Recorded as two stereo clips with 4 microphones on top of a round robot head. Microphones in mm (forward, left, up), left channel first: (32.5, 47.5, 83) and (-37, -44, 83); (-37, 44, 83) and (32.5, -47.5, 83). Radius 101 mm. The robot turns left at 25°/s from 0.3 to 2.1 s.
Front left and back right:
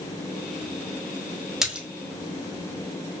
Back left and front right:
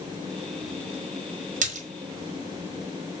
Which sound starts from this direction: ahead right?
A splash, at 1.6 s.